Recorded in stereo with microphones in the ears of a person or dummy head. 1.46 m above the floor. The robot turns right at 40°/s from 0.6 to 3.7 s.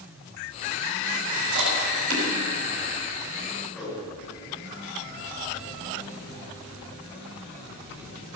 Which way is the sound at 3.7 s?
5° right (ahead or behind).